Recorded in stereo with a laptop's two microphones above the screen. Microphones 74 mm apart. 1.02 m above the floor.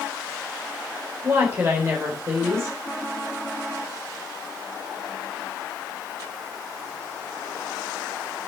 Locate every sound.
1.2 s a woman speaking: 35° right (ahead or behind), 3.5 m